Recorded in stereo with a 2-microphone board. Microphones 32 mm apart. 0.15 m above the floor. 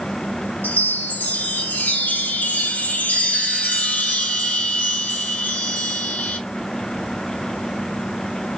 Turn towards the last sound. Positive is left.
turn(degrees=75)  # may be behind; listen again after turning